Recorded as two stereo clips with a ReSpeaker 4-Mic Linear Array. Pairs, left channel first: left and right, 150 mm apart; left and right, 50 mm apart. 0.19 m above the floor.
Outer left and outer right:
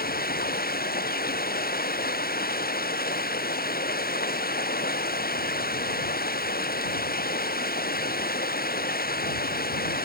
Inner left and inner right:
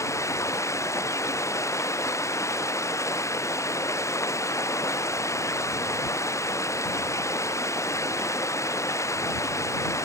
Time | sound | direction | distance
0.0 | running water | 85° left | ?